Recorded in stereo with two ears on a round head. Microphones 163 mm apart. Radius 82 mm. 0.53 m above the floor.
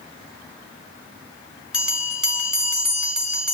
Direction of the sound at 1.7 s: 5° right (ahead or behind).